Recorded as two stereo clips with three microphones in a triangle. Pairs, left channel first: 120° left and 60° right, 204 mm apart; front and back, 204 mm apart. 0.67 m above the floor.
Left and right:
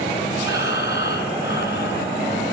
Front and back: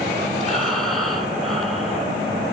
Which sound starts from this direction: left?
Breathing, at 0.4 s.